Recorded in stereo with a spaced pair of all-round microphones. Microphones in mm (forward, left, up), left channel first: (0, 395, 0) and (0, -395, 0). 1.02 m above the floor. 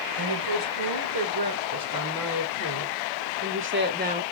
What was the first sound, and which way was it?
A woman speaking, 35° right (ahead or behind).